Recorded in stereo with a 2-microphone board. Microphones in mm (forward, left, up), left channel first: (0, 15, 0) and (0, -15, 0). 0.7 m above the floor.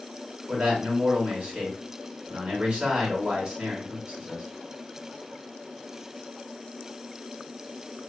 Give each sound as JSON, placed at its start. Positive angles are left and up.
{"t": 0.5, "sound": "a man speaking", "side_deg": -40, "distance_m": 1.5}